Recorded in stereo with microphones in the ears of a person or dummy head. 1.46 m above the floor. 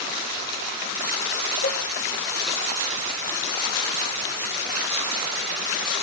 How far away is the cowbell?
About 6 m.